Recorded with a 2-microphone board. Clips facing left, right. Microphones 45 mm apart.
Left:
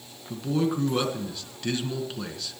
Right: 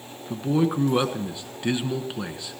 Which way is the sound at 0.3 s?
20° right (ahead or behind).